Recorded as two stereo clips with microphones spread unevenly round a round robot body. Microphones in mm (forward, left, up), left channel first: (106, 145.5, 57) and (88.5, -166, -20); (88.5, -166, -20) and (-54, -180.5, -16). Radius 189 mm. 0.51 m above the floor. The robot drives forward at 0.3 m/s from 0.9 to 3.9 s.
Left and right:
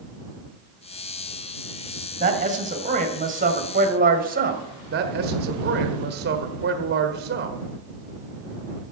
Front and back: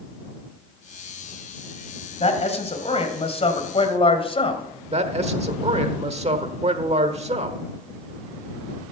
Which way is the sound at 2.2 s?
30° right.